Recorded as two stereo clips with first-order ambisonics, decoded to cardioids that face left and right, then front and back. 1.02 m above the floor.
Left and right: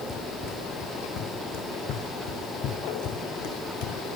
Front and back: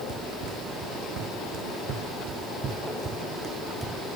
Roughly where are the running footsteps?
Behind left.